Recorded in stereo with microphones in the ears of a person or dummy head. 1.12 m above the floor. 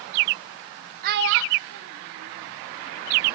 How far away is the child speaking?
About 0.9 m.